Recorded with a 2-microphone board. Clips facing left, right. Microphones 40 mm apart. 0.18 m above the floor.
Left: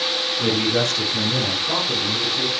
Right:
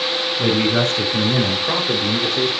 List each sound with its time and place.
0.4 s a man speaking: 15° right (ahead or behind), 1.5 m; by 2.5 s 55° right (ahead or behind), 3.5 m